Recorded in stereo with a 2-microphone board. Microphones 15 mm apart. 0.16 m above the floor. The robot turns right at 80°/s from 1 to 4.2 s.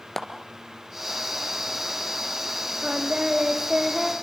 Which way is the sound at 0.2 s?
25° left (ahead or behind).